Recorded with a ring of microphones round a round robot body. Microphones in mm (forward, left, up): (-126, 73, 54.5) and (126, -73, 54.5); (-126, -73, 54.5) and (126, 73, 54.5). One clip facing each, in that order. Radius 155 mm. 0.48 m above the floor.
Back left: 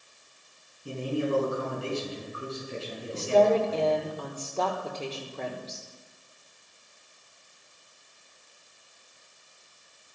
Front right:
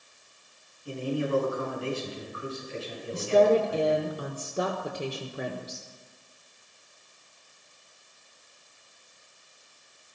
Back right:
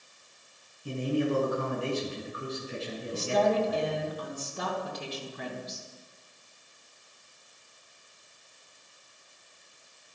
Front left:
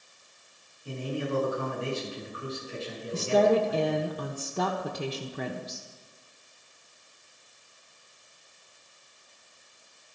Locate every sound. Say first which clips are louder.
0.8 s a man speaking: even, back right 4 dB; 145° right, 6 m
3.1 s a woman speaking: front right 1 dB, front left 4 dB; 45° left, 1.2 m